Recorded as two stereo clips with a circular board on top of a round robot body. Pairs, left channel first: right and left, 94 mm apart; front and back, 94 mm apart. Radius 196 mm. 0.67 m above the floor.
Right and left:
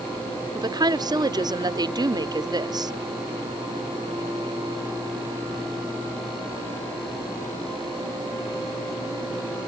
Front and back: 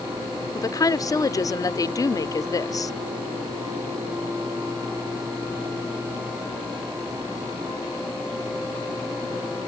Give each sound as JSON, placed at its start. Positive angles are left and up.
{"t": 0.6, "sound": "a woman speaking", "azimuth_deg": 50}